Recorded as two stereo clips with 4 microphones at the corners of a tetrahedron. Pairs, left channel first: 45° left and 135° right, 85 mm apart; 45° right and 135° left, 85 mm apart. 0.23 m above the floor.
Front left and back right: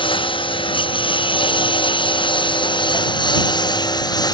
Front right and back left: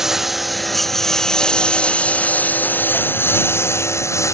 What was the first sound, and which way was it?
A lawn mower, 50° left.